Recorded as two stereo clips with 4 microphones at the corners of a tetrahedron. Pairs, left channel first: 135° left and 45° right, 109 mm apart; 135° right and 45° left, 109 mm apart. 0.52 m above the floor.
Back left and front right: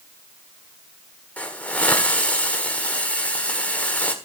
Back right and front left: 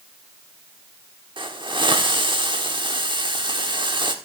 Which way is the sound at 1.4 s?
65° left.